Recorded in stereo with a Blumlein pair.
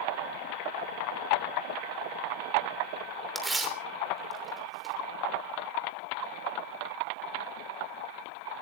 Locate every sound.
3.4 s tearing paper: 10° right, 3 m